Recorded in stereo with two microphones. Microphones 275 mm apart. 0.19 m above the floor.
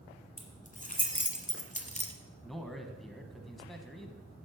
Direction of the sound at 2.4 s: Centre (ahead or behind).